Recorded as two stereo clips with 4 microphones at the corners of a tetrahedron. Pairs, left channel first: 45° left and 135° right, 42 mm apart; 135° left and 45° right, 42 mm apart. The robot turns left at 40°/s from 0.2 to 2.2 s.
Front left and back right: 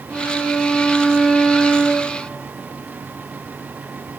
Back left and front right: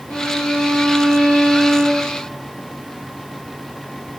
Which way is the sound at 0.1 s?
175° left.